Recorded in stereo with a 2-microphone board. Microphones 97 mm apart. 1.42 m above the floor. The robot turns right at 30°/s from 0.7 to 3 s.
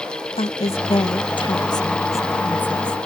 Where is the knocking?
No knocking in this recording.